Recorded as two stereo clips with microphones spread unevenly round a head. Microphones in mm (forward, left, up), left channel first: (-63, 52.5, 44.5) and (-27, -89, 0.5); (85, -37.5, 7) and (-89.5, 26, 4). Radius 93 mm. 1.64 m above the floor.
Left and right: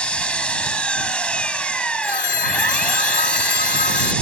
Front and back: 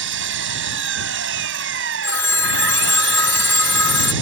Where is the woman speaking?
I don't hear a woman speaking.